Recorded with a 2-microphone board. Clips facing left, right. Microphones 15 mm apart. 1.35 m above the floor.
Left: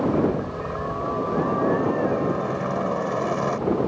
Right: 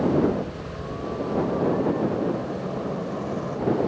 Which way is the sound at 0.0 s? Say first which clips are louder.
Even; 35° left (ahead or behind).